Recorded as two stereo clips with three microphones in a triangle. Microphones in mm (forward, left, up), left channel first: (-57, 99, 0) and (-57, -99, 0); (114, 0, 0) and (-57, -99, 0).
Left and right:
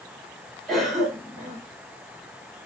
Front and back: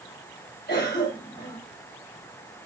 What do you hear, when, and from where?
0.7 s a cough: straight ahead, 3 m